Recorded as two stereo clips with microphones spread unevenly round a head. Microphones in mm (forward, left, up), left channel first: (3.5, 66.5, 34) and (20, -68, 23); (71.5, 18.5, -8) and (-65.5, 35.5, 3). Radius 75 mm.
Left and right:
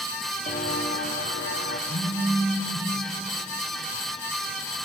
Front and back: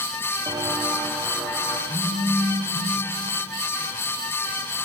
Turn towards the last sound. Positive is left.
turn(degrees=100)